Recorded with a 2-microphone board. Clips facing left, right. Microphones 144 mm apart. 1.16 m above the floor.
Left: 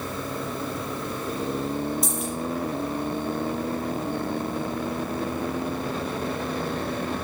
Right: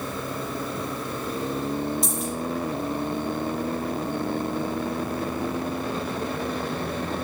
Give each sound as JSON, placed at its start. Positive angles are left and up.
{"t": 2.0, "sound": "a dropped coin", "side_deg": 0, "distance_m": 6.5}